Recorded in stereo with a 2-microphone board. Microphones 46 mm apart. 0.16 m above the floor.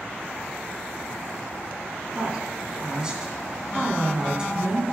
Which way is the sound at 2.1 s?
15° right (ahead or behind).